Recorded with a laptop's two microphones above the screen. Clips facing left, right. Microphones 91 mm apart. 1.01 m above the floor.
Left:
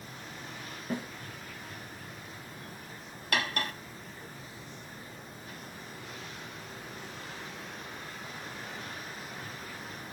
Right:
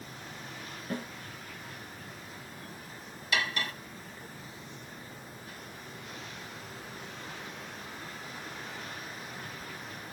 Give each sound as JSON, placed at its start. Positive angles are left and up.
{"t": 0.9, "sound": "a snare drum", "side_deg": 15, "distance_m": 8.0}
{"t": 3.3, "sound": "cutlery clinking", "side_deg": 55, "distance_m": 1.2}